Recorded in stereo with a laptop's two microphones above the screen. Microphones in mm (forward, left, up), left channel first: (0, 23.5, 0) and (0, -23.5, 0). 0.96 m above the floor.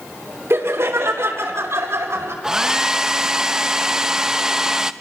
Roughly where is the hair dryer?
Centre.